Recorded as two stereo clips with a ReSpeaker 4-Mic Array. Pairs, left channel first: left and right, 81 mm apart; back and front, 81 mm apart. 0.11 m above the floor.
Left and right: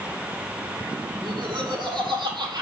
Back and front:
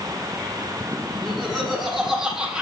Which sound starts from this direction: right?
Laughter, at 1.1 s.